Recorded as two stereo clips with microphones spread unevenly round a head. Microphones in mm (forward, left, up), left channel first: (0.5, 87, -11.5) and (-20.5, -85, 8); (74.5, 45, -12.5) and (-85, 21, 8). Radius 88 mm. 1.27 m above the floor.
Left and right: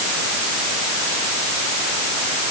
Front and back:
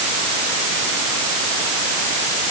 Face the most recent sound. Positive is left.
No sound to turn to.